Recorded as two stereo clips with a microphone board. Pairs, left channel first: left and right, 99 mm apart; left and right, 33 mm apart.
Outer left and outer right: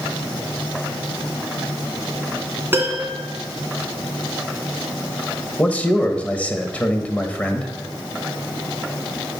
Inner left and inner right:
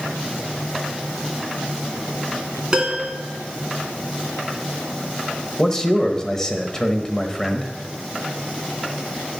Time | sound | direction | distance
2.7 | a piano | 25° right (ahead or behind) | 2.5 m
5.6 | a man speaking | 15° left (ahead or behind) | 0.9 m